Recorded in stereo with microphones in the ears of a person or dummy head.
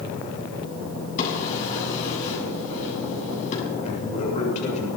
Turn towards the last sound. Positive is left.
turn(degrees=35)  # may be behind; listen again after turning